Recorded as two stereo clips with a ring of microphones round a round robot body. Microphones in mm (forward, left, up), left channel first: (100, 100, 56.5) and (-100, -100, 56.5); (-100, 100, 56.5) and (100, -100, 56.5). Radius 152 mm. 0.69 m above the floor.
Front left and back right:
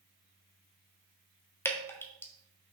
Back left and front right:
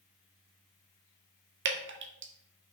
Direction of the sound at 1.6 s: 35° right.